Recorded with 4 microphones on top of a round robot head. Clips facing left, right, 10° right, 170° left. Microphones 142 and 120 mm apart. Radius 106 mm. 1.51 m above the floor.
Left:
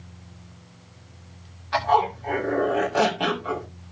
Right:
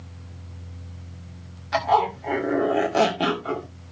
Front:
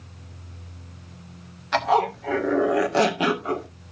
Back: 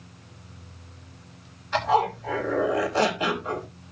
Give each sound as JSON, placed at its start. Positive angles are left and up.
{"t": 1.7, "sound": "a zipper", "azimuth_deg": -30, "distance_m": 1.8}